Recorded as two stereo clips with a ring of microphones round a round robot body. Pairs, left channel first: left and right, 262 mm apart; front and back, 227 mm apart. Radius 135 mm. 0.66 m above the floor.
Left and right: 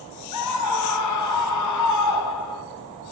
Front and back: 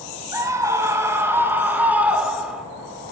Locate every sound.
0.3 s a scream: 105° left, 5.5 m; by 2.6 s 95° left, 4 m